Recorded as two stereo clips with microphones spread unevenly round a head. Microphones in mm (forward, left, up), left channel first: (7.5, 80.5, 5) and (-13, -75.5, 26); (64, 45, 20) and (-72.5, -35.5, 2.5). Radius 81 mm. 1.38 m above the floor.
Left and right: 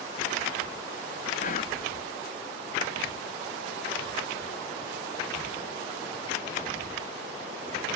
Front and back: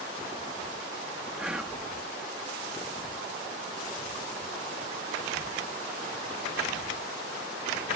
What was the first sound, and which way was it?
Whispering, 125° left.